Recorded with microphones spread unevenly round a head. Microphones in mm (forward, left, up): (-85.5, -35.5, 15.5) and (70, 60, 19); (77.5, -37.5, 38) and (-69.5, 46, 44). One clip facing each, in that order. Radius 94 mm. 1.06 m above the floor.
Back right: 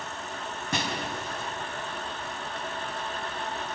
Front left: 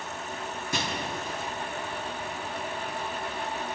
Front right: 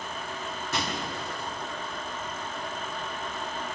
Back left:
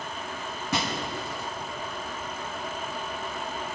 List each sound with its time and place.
0.7 s breaking glass: 175° left, 5 m